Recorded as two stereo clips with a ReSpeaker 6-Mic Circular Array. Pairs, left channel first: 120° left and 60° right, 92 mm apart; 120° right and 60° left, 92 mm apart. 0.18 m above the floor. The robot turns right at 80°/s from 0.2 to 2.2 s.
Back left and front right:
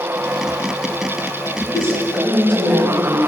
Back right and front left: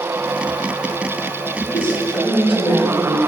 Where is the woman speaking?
175° right, 7 m; by 3.2 s 130° right, 7 m.